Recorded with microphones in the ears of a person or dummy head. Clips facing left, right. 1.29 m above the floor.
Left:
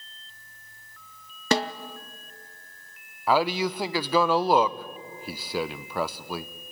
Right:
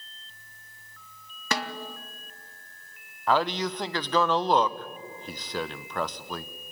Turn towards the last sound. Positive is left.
turn(degrees=10)  # may be behind; listen again after turning